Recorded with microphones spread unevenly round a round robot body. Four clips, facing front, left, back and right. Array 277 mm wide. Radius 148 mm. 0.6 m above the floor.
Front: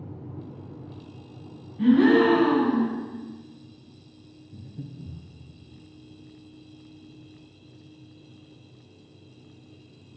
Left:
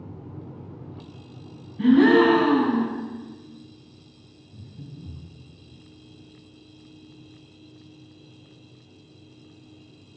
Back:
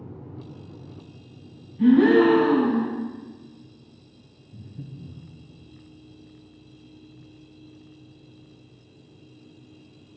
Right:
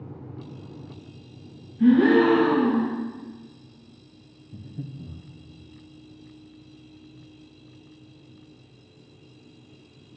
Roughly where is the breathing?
Ahead right.